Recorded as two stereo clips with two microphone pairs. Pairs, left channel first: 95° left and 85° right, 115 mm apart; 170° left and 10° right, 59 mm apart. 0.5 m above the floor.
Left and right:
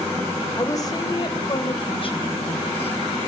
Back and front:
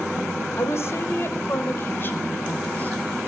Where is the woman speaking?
150° left, 2 m; by 3.2 s 115° left, 4 m.